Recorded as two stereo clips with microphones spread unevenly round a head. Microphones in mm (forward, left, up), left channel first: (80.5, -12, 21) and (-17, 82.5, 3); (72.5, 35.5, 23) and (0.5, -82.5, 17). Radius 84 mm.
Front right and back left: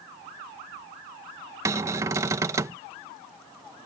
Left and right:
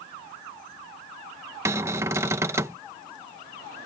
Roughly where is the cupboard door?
Behind.